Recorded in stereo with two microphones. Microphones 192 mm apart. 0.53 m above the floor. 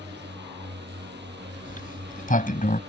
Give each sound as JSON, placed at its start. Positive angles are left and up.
{"t": 0.0, "sound": "a drone", "side_deg": -65}
{"t": 1.6, "sound": "a sliding door", "side_deg": 45}